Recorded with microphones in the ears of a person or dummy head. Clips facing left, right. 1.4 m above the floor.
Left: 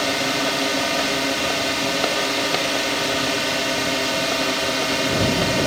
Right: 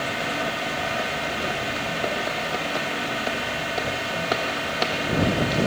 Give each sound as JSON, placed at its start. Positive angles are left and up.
{"t": 0.0, "sound": "a drone", "side_deg": 55}